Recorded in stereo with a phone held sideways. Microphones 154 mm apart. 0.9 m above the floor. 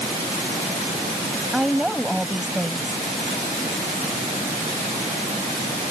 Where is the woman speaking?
Centre (ahead or behind).